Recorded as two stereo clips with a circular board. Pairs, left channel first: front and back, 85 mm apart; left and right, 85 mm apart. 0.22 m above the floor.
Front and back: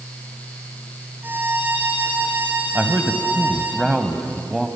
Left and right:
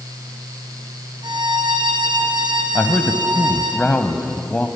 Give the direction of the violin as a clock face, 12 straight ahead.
4 o'clock.